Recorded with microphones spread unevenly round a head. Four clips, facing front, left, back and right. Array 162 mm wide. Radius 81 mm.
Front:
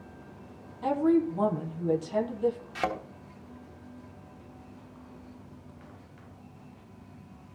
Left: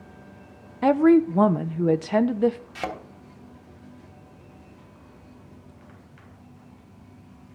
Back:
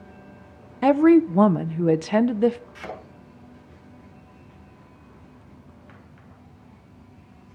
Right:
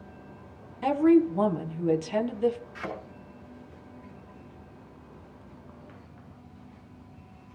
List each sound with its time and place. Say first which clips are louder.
0.8 s a woman speaking: left 4 dB, back 9 dB; 145° left, 1.1 m
2.8 s a thud: left 5 dB, front 5 dB; 35° left, 3 m